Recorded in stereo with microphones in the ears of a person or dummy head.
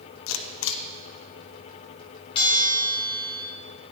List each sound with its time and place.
0.3 s a camera shutter: 75° left (ahead or behind), 1.1 m
2.4 s a bell: 30° left (ahead or behind), 2.5 m